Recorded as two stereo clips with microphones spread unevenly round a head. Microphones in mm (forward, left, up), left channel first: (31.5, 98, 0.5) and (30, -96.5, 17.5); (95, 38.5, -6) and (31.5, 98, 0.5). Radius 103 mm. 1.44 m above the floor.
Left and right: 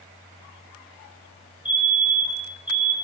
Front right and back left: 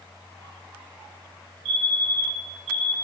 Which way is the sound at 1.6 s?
175° right.